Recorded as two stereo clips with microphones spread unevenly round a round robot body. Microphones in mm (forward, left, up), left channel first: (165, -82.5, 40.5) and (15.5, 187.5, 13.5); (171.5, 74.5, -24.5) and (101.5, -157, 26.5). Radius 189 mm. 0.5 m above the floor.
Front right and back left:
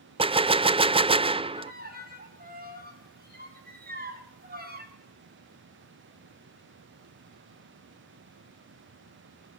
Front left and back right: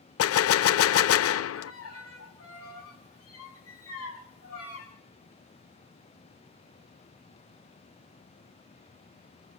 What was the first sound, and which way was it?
A gunshot, 45° left.